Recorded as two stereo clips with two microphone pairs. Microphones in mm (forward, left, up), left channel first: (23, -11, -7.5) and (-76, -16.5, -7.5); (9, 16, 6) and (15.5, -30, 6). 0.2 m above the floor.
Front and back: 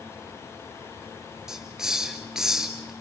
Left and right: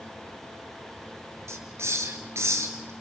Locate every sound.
1.5 s a hiss: 95° right, 2.0 m